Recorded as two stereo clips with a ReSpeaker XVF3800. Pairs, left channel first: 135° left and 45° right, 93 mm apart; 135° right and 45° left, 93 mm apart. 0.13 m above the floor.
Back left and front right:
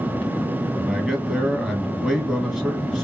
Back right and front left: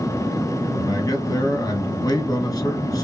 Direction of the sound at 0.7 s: 120° right.